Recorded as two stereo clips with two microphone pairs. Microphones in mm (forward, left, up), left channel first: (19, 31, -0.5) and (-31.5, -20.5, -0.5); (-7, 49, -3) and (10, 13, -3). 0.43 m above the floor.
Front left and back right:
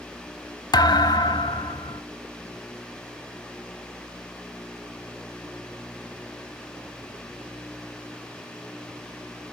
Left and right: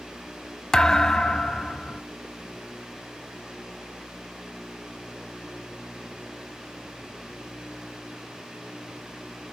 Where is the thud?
45° left, 0.5 m.